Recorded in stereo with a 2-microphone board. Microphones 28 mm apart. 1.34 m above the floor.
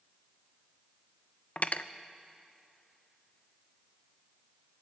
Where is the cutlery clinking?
50° left (ahead or behind), 0.6 m.